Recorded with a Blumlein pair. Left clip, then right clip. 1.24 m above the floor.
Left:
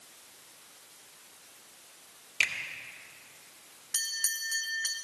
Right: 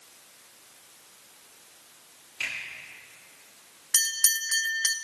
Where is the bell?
65° right, 0.7 m.